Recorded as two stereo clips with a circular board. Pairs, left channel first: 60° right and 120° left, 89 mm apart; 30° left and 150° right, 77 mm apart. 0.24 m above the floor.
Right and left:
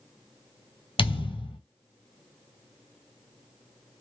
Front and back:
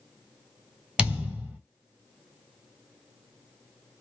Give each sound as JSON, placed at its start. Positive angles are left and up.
{"t": 1.0, "sound": "a thud", "azimuth_deg": -75, "distance_m": 1.2}